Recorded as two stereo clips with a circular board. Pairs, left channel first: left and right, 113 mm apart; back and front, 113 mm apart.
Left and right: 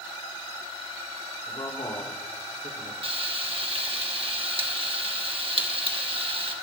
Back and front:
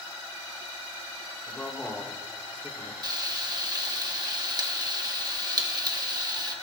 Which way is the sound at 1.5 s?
100° left.